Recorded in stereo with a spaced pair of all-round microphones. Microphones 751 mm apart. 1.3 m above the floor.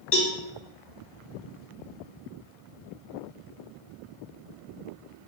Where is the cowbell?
85° left, 1.8 m.